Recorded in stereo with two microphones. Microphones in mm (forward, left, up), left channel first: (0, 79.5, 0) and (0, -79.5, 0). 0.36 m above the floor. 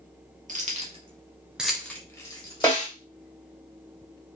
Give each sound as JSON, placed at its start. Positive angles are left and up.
{"t": 0.5, "sound": "keys jangling", "side_deg": -55, "distance_m": 0.8}
{"t": 2.6, "sound": "a snare drum", "side_deg": 15, "distance_m": 1.7}